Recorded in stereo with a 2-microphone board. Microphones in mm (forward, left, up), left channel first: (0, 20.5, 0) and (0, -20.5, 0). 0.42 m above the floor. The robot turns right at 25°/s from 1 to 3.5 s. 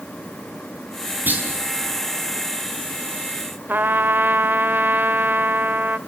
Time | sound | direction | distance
1.3 | a clunk | 55° right (ahead or behind) | 4.5 m
3.7 | a trumpet | 60° right (ahead or behind) | 0.7 m